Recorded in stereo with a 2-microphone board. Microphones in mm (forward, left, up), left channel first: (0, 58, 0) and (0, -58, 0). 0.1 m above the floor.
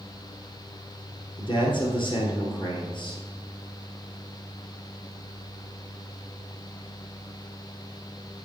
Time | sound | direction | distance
1.4 | a man speaking | 45° left (ahead or behind) | 2.5 m